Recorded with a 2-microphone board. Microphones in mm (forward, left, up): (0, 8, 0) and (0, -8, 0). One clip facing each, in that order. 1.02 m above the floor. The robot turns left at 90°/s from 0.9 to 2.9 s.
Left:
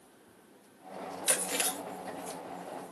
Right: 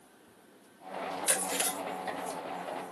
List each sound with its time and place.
1.3 s chewing: 85° left, 0.9 m; by 2.4 s 20° right (ahead or behind), 0.9 m